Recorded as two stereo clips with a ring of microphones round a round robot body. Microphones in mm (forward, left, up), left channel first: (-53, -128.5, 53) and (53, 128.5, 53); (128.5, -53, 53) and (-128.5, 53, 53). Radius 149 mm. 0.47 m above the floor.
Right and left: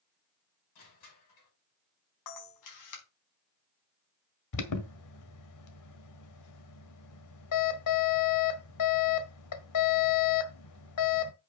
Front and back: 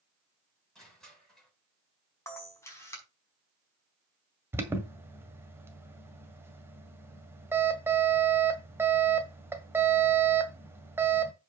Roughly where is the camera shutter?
Right.